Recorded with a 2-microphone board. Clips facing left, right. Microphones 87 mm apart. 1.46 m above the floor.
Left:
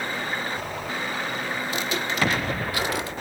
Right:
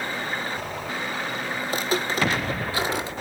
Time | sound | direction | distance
1.6 | footsteps | 40° right (ahead or behind) | 1.9 m